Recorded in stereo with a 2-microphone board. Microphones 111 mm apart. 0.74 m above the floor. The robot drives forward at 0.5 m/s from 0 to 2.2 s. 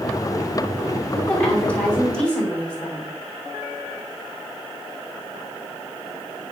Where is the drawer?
No drawer in this recording.